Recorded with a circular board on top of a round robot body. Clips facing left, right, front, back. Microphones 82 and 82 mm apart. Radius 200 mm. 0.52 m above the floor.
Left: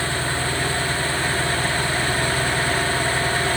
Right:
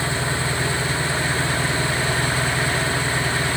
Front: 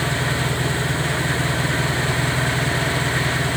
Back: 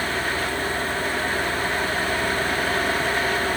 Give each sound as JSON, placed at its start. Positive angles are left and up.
{"t": 0.0, "sound": "an engine running", "azimuth_deg": -20}